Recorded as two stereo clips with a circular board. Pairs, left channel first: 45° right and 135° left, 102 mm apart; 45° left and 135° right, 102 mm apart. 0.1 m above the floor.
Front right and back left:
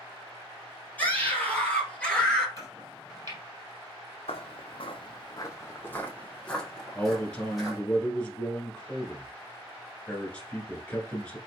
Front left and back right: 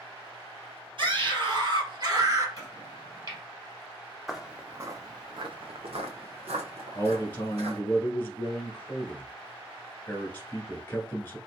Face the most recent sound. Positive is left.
turn(degrees=15)